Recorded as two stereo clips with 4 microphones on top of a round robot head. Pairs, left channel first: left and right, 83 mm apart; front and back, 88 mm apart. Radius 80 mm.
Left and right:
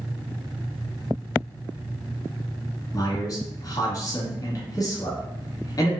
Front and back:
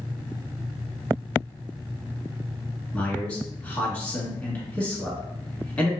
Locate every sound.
2.9 s a man speaking: 70° left, 1.5 m